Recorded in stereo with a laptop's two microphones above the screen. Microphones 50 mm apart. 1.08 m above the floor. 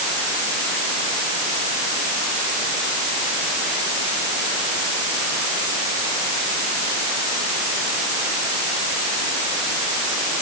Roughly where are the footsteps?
I don't hear footsteps.